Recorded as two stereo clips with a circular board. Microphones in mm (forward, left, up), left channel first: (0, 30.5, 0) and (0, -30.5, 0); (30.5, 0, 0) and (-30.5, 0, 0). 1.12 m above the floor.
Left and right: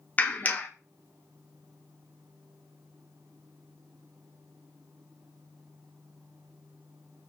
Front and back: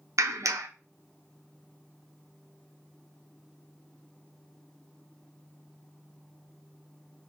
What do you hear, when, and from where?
0.2 s a clap: 150° left, 0.5 m